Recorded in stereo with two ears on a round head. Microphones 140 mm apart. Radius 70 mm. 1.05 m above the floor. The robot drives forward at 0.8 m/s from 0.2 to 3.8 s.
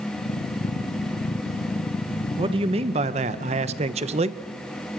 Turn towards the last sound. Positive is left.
turn(degrees=-40)  # may be behind; listen again after turning